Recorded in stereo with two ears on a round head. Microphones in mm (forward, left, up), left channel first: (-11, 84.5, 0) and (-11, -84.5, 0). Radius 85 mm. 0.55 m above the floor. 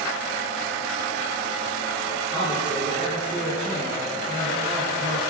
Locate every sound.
2.3 s a man speaking: 25° left (ahead or behind), 7 m